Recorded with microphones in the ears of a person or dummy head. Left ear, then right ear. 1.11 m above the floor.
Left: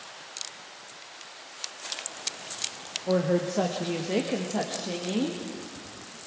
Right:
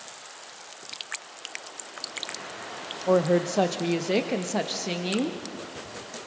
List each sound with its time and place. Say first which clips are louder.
3.1 s a woman speaking: right 4 dB; 50° right (ahead or behind), 0.9 m; by 5.4 s 75° right (ahead or behind), 1.6 m